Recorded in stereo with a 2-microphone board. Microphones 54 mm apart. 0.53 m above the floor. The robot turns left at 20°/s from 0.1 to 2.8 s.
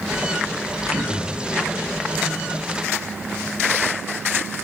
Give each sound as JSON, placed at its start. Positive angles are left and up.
{"t": 0.9, "sound": "throat clearing", "side_deg": -80, "distance_m": 9.5}